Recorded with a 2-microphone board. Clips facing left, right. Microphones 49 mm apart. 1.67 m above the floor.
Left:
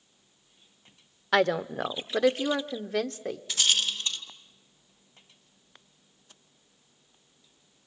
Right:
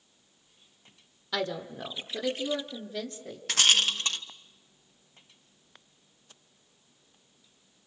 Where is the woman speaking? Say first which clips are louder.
Left 8 dB; 55° left (ahead or behind), 0.8 m; by 3.4 s 85° left, 1.8 m.